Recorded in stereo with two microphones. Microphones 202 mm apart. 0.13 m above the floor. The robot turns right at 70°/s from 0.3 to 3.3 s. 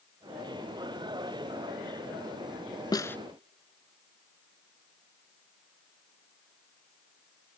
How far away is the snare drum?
About 0.5 m.